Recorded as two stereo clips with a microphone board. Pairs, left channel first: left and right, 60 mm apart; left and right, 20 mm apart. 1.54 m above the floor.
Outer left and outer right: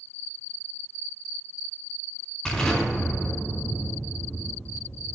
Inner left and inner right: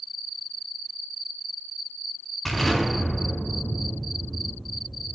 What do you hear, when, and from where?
2.5 s an explosion: 10° left (ahead or behind), 2.5 m